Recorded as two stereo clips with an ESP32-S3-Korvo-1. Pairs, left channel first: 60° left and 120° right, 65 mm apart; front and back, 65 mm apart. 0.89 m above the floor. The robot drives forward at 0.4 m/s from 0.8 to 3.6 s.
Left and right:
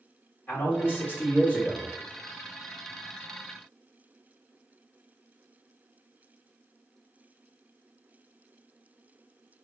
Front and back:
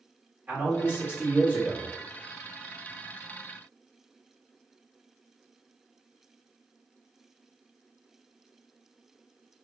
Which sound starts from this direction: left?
A man speaking, at 0.5 s.